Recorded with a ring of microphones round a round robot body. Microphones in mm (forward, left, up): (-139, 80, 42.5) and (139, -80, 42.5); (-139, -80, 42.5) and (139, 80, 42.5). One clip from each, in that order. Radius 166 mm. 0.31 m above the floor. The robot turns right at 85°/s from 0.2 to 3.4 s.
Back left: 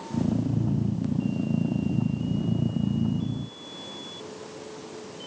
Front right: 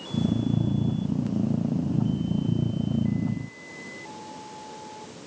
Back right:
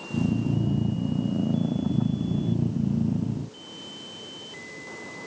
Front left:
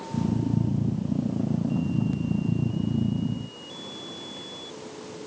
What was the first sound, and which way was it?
Only background noise.